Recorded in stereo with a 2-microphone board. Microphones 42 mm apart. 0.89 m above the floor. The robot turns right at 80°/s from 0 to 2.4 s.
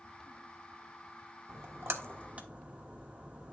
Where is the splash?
70° right (ahead or behind), 1.2 m; by 3.5 s 35° right (ahead or behind), 1.2 m.